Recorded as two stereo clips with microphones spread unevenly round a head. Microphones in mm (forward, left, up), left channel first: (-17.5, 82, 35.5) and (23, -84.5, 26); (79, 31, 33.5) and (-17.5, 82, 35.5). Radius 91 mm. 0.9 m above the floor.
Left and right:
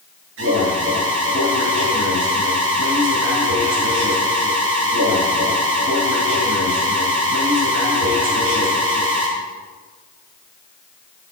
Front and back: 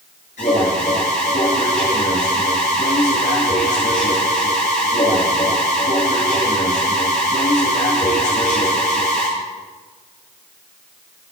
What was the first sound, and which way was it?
An alarm, 65° right.